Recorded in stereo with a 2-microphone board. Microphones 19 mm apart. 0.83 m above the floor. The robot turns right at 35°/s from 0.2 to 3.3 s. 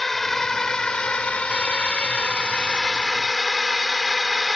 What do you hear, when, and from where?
0.0 s a drone: 10° left (ahead or behind); by 4.6 s 15° left (ahead or behind)